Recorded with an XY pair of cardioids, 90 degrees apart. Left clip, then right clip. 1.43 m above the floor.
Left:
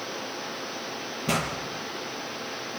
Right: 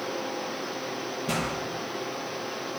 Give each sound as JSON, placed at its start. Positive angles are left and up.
{"t": 1.3, "sound": "a pop", "azimuth_deg": 45, "distance_m": 6.5}